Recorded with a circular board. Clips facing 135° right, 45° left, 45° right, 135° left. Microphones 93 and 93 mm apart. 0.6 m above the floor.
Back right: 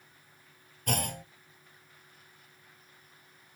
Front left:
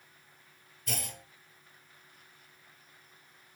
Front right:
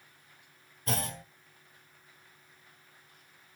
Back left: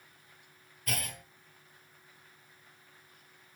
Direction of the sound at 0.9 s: 105° right.